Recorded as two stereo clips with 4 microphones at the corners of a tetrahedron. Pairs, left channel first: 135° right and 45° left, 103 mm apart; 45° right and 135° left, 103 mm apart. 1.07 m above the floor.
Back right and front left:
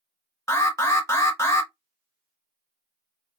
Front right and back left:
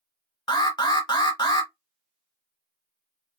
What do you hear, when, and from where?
0.5 s an alarm: 75° right, 1.1 m